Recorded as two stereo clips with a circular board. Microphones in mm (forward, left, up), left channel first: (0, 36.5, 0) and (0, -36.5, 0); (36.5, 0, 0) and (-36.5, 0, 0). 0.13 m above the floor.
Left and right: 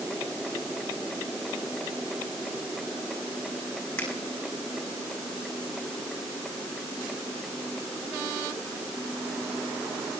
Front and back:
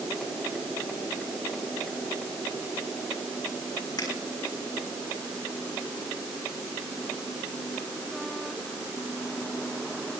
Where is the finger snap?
30° left, 5.5 m.